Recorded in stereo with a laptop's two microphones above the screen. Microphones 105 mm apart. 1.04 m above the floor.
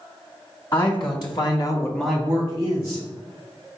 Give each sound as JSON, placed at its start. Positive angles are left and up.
{"t": 0.7, "sound": "a man speaking", "side_deg": 45, "distance_m": 1.7}